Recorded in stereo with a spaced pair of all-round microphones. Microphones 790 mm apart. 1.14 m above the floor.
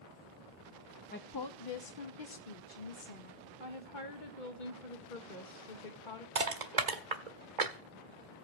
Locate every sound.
1.1 s a woman speaking: 10° left (ahead or behind), 0.7 m; by 3.5 s 80° left, 1.9 m
3.6 s a woman speaking: 70° left (ahead or behind), 1.6 m
6.3 s crushing: 60° right (ahead or behind), 1.7 m